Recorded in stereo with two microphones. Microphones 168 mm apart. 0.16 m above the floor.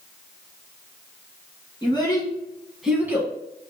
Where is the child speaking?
30° left (ahead or behind), 1.5 m; by 3.3 s 20° right (ahead or behind), 1.2 m.